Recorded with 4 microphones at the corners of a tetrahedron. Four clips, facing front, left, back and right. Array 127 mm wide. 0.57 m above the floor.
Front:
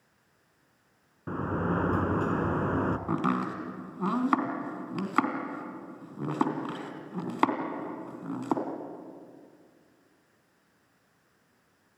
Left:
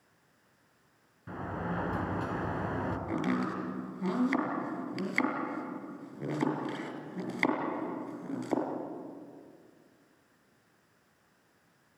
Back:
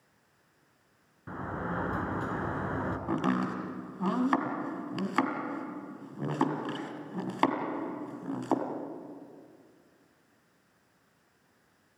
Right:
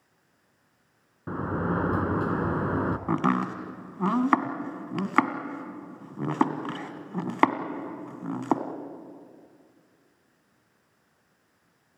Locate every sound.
1.3 s a sliding door: 60° right, 1.2 m
3.1 s chopping: 85° right, 2 m